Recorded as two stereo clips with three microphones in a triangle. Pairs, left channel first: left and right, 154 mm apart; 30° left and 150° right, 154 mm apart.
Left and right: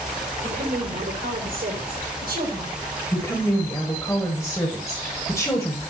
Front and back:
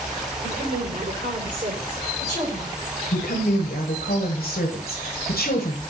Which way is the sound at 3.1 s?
20° left.